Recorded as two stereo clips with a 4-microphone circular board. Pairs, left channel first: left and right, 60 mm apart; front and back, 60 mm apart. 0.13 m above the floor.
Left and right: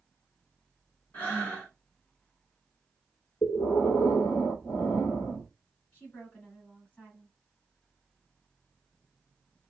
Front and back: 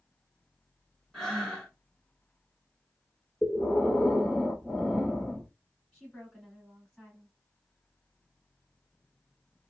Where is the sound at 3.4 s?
90° left, 0.8 m.